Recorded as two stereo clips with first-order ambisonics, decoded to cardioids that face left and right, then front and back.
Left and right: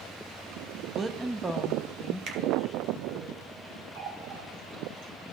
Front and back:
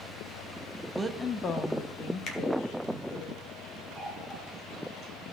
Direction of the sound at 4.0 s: 85° right.